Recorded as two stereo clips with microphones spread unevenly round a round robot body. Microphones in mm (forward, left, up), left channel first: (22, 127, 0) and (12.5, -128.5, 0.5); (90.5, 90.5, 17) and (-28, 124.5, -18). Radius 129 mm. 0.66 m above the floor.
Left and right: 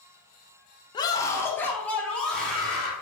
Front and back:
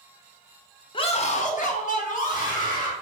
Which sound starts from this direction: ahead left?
A scream, at 0.9 s.